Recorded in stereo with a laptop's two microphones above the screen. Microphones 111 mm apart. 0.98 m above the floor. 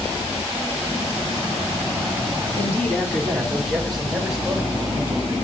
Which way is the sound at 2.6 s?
20° left (ahead or behind).